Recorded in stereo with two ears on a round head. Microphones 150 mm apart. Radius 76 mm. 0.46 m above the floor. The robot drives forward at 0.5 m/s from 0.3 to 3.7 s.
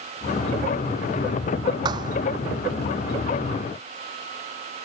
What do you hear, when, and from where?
1.9 s a thud: 25° right (ahead or behind)